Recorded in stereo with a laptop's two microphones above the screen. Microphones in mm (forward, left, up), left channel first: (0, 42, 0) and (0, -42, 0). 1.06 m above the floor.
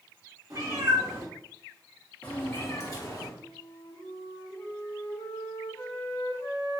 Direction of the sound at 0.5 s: 45° right (ahead or behind).